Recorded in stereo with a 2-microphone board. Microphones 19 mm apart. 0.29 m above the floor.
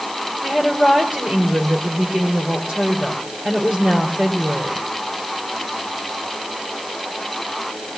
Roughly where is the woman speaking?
Right.